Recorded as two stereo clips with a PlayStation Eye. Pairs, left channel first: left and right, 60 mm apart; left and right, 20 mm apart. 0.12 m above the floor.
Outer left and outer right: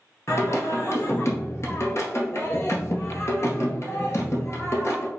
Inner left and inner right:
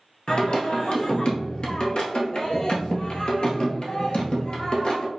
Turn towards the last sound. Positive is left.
turn(degrees=50)  # may be behind; listen again after turning